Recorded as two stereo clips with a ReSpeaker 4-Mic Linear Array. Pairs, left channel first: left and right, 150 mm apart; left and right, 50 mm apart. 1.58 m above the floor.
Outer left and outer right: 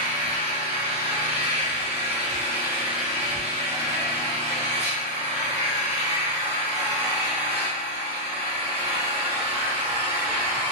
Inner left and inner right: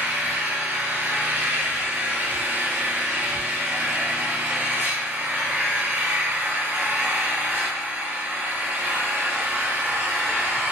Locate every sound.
0.0 s an engine running: 45° right (ahead or behind), 0.9 m